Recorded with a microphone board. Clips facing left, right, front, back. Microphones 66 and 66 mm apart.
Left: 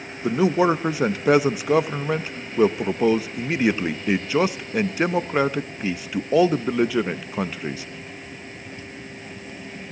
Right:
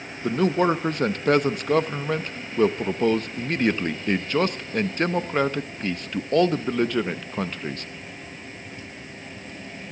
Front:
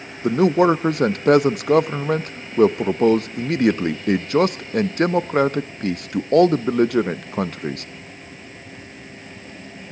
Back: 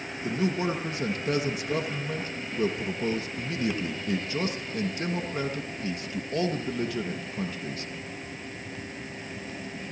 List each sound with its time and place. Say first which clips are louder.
0.2 s a man speaking: left 2 dB, front 13 dB; 5° left, 0.7 m